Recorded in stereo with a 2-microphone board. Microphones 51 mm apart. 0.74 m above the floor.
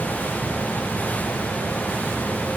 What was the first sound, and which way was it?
Only background noise.